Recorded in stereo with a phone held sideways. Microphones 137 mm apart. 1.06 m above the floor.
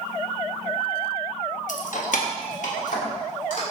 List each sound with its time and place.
1.7 s keys jangling: 70° left (ahead or behind), 0.6 m; by 3.6 s 65° left (ahead or behind), 2 m